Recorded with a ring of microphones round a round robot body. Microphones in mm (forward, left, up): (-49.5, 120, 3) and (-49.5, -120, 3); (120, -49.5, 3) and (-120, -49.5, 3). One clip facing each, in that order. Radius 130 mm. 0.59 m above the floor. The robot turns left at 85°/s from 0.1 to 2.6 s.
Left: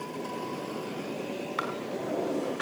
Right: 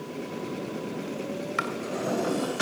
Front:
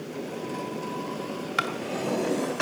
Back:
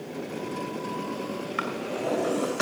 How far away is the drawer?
About 2.5 m.